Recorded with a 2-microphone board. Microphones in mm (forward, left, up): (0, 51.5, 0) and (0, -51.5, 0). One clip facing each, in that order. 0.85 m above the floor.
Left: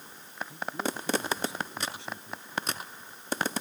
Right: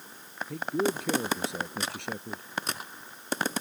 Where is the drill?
No drill in this recording.